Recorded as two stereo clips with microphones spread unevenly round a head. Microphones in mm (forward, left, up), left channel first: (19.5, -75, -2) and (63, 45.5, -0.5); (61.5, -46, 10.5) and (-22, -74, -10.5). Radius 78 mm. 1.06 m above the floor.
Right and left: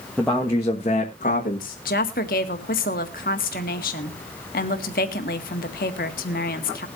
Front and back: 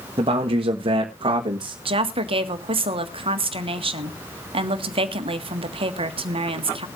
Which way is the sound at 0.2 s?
160° left.